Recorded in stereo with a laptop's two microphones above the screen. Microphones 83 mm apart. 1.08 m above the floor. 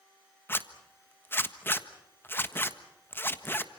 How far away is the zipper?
About 1.4 m.